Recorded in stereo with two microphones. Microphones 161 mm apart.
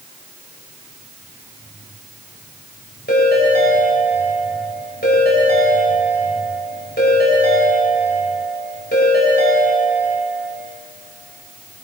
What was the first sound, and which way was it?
A ringtone, 85° left.